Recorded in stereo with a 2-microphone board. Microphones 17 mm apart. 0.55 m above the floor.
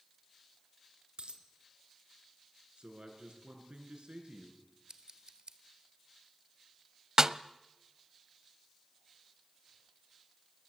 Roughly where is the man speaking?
Right.